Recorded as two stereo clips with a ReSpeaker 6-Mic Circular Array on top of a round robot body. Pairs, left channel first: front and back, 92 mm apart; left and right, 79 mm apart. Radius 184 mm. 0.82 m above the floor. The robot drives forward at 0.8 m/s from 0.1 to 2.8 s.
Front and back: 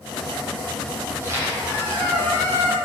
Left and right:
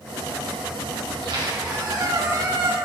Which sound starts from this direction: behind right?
A squeak, at 1.1 s.